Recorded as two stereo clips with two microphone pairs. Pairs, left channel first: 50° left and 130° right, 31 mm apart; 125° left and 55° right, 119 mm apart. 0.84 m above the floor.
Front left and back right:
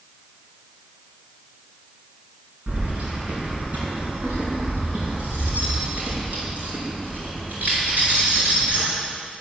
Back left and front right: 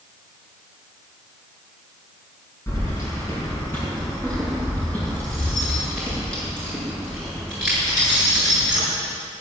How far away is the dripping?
I don't hear dripping.